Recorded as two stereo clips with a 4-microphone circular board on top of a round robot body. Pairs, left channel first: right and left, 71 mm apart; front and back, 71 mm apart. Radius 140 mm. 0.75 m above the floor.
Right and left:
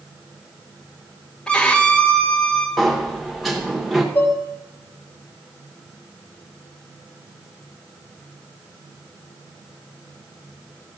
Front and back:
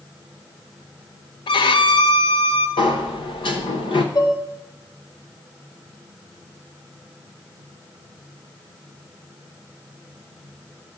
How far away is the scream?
I don't hear a scream.